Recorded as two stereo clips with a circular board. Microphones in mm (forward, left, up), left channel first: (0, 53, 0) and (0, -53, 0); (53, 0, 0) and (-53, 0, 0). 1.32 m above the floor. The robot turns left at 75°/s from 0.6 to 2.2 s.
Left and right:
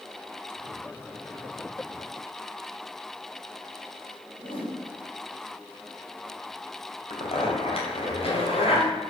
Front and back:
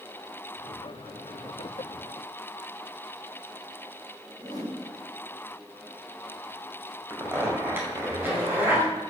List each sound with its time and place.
4.4 s a whoosh: 55° left, 2 m
7.1 s a zipper: 110° left, 2.5 m